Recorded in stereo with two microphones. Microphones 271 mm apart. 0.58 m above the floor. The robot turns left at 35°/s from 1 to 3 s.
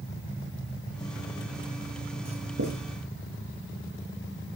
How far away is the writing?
About 6 m.